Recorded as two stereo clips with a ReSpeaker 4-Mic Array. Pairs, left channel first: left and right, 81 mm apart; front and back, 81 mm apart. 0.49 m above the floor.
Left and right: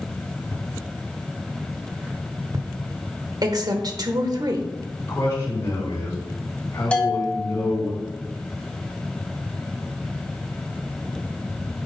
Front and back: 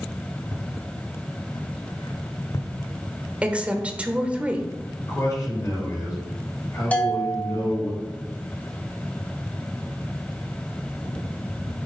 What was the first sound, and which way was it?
Footsteps, 40° left.